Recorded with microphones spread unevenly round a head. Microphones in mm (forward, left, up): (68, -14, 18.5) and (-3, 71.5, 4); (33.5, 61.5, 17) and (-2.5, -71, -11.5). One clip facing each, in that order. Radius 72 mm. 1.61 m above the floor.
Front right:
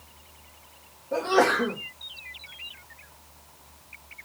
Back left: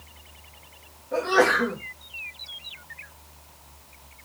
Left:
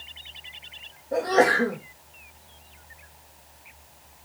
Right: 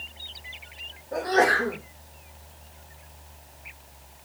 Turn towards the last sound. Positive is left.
turn(degrees=15)